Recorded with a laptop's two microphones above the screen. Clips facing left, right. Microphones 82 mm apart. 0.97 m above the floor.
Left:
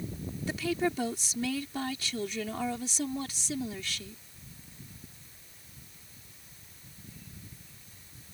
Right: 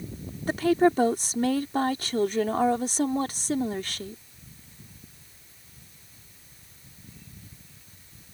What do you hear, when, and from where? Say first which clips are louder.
0.5 s a woman speaking: right 10 dB; 50° right (ahead or behind)